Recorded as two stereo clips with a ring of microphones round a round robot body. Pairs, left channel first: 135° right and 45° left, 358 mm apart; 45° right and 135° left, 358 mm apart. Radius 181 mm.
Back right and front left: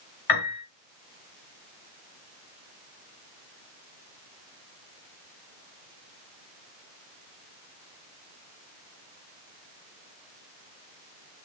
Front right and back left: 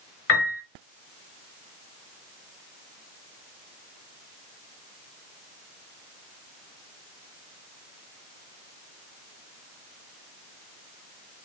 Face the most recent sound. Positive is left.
turn(degrees=-100)